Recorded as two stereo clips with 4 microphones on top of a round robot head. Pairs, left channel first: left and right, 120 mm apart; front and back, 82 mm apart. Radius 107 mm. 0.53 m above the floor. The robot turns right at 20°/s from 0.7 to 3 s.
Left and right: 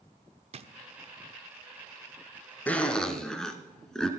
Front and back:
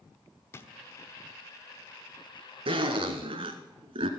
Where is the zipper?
170° left, 1.3 m; by 4.1 s 175° left, 1.3 m.